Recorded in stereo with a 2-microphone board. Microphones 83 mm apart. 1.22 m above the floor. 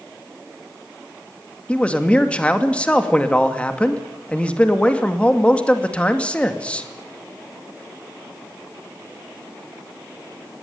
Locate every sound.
1.7 s a man speaking: 15° left (ahead or behind), 2.5 m